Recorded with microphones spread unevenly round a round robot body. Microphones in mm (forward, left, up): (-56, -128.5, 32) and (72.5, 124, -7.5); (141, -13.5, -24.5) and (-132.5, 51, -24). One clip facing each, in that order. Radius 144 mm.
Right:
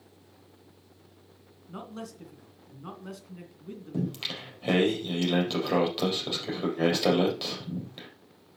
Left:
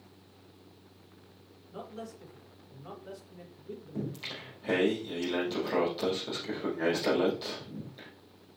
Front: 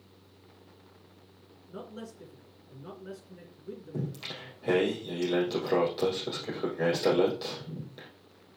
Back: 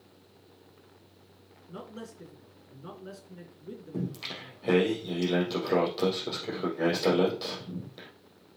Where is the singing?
105° right, 4 m.